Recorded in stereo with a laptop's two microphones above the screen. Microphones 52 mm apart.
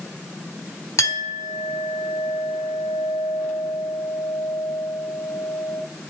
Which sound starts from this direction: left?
A clink, at 1.0 s.